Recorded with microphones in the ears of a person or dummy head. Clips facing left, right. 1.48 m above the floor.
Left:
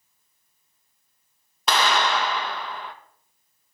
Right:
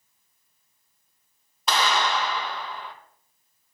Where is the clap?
60° left (ahead or behind), 1.2 m.